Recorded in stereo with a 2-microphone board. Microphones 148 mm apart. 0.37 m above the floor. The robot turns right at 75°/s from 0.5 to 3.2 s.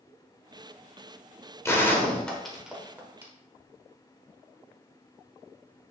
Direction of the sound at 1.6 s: 15° left (ahead or behind).